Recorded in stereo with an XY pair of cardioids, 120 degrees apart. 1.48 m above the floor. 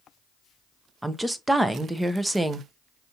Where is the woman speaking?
10° right, 0.6 m.